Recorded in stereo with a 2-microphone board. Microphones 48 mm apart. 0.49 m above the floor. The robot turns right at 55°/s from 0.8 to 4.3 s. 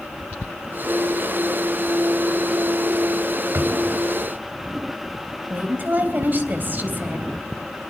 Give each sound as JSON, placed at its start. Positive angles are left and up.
{"t": 3.5, "sound": "a drawer", "side_deg": -55, "distance_m": 1.6}
{"t": 5.5, "sound": "a woman speaking", "side_deg": -40, "distance_m": 3.0}